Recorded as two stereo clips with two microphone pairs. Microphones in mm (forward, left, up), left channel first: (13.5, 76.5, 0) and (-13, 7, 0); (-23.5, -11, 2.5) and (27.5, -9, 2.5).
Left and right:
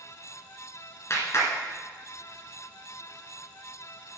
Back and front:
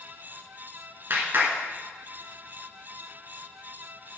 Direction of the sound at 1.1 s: 35° left.